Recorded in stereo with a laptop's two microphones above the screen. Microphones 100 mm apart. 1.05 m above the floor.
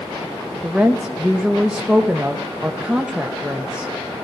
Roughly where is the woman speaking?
Centre.